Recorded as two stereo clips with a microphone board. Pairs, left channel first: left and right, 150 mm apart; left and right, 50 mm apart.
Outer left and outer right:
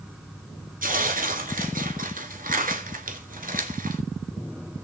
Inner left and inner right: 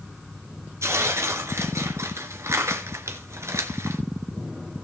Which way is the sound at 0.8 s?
70° right (ahead or behind).